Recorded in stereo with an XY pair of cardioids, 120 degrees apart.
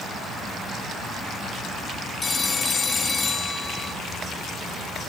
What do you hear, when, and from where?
2.2 s a phone ringing: 25° left, 2 m